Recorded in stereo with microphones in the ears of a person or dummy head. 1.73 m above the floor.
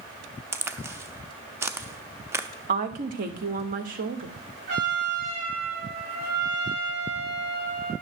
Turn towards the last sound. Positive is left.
turn(degrees=-55)  # may be behind; listen again after turning